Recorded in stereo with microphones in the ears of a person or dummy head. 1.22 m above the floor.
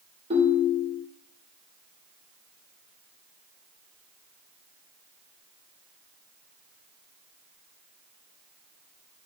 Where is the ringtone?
25° right (ahead or behind), 2.5 m.